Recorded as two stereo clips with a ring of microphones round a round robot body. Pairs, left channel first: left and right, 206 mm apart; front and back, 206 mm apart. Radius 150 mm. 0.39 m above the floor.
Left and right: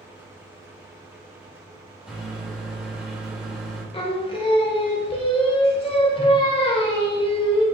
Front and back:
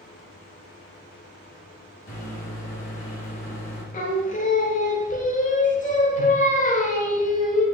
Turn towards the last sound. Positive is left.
turn(degrees=35)